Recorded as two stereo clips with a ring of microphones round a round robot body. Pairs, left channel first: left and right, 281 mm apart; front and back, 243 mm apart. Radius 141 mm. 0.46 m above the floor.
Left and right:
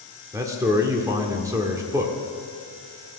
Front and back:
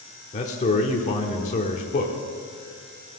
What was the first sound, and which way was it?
A man speaking, 25° right.